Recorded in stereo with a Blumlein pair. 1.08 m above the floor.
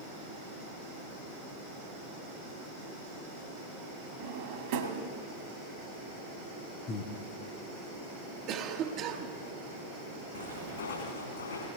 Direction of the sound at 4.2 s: 45° right.